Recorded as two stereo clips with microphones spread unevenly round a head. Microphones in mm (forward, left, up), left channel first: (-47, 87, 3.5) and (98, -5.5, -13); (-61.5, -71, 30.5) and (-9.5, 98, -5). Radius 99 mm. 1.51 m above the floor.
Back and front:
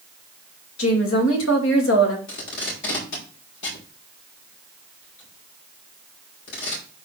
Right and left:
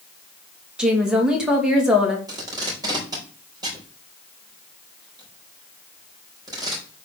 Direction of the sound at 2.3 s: 145° left.